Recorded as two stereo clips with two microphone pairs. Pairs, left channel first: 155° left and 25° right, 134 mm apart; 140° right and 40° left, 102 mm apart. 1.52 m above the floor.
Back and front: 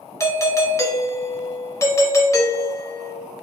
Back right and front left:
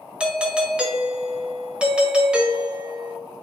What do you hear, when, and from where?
0.2 s a doorbell: 115° left, 0.5 m